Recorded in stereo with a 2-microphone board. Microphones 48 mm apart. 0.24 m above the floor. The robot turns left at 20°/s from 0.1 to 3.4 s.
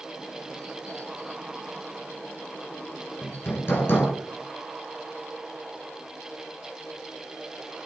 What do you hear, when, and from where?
3.2 s hammering: 55° left (ahead or behind), 1.5 m; by 4.1 s 50° left (ahead or behind), 1.5 m